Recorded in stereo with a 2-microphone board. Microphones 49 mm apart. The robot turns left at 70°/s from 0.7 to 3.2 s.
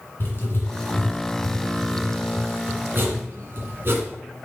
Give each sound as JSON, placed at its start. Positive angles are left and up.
{"t": 0.2, "sound": "writing", "side_deg": 50, "distance_m": 1.8}